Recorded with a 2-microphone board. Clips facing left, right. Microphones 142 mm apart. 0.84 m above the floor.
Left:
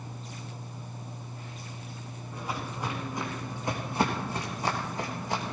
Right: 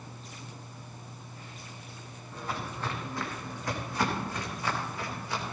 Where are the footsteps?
10° left (ahead or behind), 4.5 m; by 5.5 s 50° left (ahead or behind), 3.5 m.